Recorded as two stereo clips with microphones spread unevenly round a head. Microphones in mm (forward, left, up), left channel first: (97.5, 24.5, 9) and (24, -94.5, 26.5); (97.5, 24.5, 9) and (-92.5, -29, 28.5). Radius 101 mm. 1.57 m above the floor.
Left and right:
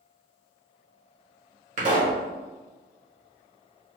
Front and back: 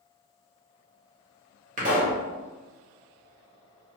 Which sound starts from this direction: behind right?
A pop, at 1.8 s.